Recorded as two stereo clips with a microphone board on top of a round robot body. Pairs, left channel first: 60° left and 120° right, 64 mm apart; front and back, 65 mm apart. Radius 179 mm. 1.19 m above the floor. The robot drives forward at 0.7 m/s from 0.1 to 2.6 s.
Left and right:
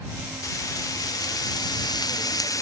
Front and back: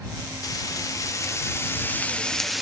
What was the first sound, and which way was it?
Frying, 30° left.